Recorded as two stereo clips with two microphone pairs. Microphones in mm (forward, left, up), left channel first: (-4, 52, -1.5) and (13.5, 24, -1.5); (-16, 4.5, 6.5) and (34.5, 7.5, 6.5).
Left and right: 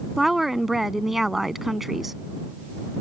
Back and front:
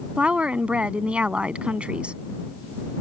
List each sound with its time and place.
0.2 s a woman speaking: 15° left